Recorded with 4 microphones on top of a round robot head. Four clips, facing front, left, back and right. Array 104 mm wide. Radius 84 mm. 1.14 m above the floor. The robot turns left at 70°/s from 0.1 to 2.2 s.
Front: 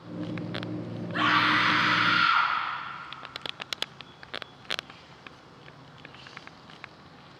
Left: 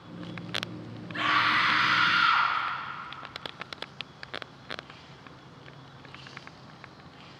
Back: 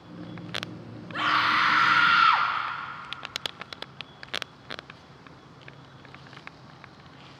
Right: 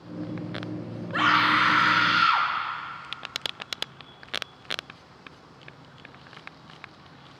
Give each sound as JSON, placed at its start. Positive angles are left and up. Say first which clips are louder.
{"t": 1.1, "sound": "a scream", "louder": "right 4 dB, even", "azimuth_deg": -90, "distance_m": 4.5}